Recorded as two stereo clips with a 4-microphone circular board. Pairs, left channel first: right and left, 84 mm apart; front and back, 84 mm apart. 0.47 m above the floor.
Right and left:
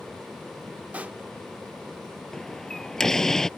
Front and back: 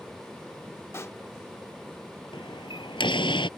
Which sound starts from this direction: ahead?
A door slam, at 2.3 s.